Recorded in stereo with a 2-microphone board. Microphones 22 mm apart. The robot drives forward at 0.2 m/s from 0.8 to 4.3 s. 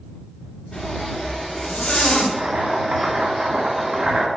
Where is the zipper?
50° left (ahead or behind), 2.5 m; by 2.3 s 60° left (ahead or behind), 2.5 m.